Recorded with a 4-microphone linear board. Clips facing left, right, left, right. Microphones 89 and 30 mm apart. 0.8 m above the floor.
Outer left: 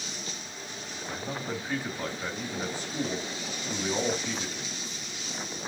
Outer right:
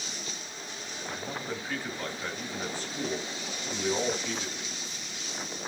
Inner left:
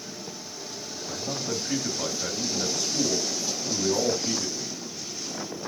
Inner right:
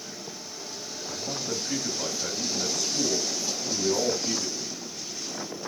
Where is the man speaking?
15° left (ahead or behind), 1.3 m.